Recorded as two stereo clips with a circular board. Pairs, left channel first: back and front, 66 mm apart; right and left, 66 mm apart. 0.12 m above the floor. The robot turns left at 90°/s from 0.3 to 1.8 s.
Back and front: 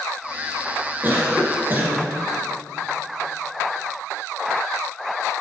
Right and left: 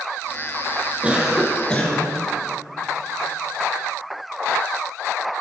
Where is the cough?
35° left, 2 m; by 2.1 s 35° right, 2 m.